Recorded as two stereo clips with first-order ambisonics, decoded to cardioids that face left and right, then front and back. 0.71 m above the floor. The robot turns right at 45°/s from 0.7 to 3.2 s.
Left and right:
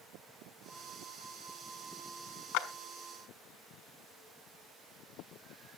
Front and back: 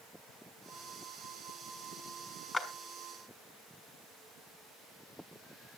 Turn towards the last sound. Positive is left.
turn(degrees=105)